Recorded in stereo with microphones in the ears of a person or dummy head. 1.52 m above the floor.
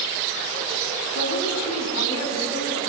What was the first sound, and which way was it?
A woman speaking, 90° left.